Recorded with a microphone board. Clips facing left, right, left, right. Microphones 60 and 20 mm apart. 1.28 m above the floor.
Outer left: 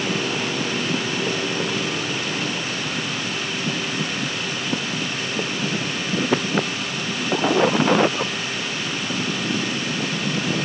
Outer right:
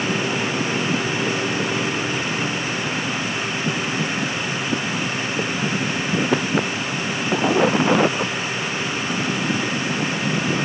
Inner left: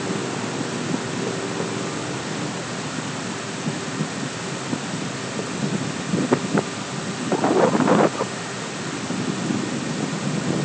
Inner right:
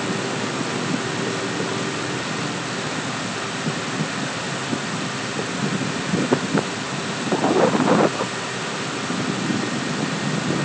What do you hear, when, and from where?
Only background noise.